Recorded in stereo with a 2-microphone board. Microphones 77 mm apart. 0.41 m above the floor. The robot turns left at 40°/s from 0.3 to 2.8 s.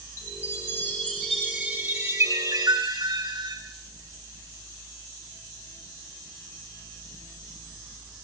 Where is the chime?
35° left, 8.5 m; by 3.6 s 65° right, 8.5 m.